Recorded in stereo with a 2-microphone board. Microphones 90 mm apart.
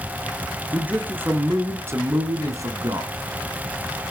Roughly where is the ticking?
I don't hear ticking.